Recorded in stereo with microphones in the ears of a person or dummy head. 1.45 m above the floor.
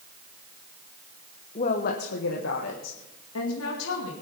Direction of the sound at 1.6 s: 30° left (ahead or behind).